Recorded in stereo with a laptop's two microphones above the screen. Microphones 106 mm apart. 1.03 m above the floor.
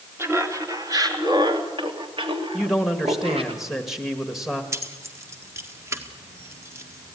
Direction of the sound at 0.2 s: 25° right (ahead or behind).